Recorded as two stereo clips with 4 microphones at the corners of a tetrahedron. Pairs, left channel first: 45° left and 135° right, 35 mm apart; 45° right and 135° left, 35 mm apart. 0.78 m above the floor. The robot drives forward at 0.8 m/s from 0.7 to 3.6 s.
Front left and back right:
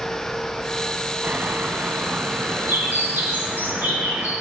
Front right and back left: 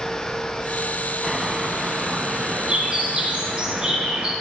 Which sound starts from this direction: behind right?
A bird, at 1.2 s.